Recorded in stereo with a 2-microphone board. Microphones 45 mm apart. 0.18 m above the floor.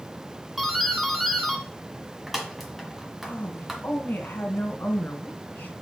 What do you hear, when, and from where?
0.6 s a doorbell: 5° right (ahead or behind), 1.4 m
3.2 s a woman speaking: 40° left (ahead or behind), 1.8 m